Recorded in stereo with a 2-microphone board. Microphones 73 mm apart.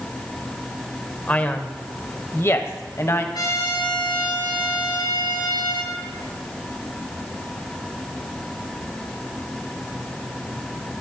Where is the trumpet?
80° left, 7.5 m.